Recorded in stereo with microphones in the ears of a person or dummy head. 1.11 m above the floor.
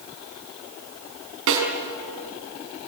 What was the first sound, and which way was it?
A snare drum, 65° right (ahead or behind).